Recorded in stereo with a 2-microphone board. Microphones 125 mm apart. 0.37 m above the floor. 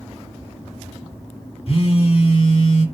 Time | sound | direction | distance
1.7 | a phone buzzing | 50° left (ahead or behind) | 0.8 m